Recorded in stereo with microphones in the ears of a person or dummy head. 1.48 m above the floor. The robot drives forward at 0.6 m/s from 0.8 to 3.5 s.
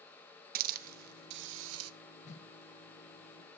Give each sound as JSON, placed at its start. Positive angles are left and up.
{"t": 0.6, "sound": "a hiss", "side_deg": -50, "distance_m": 1.0}
{"t": 2.2, "sound": "a whoosh", "side_deg": 40, "distance_m": 1.6}